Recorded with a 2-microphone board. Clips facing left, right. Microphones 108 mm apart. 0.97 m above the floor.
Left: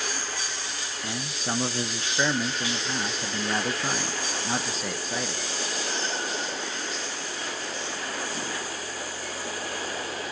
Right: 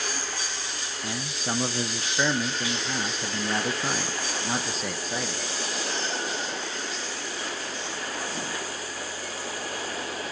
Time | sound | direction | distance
1.0 | a man speaking | centre (ahead or behind) | 0.6 m